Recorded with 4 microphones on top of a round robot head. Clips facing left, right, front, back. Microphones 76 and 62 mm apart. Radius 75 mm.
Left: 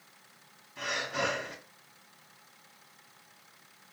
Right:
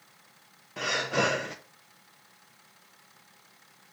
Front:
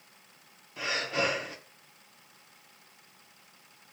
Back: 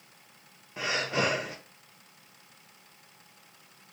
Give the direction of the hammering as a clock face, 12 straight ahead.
No hammering in this recording.